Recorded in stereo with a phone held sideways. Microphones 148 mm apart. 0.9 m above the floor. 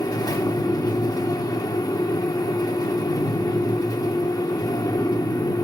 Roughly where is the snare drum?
I don't hear a snare drum.